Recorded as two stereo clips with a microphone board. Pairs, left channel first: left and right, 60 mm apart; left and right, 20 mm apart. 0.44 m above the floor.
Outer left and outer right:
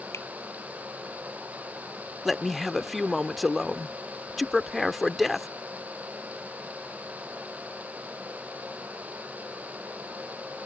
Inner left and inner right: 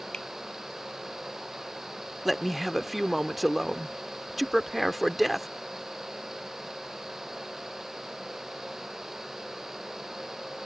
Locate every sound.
0.1 s a finger snap: 45° left (ahead or behind)
2.2 s a man speaking: centre (ahead or behind)